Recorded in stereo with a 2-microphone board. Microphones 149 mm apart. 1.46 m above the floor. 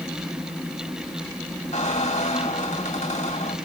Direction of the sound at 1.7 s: 50° left (ahead or behind).